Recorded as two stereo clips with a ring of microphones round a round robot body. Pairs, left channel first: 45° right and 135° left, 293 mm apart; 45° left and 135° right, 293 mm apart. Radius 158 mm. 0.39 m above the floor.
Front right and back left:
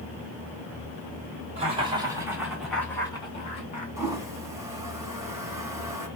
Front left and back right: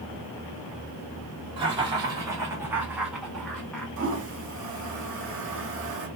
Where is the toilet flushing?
150° right, 1.3 m.